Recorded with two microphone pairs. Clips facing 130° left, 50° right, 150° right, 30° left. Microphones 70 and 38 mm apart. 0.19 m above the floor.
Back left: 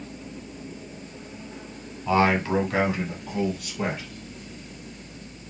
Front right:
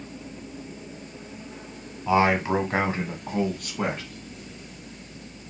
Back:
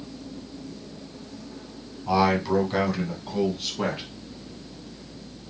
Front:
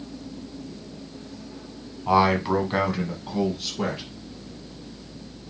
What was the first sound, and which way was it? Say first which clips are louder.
A man speaking: even, front 2 dB; 25° left.